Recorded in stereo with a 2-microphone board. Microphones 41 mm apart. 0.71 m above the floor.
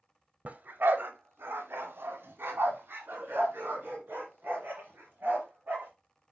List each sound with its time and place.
0.5 s a dog barking: 40° right (ahead or behind), 0.8 m; by 5.9 s 55° right (ahead or behind), 4.5 m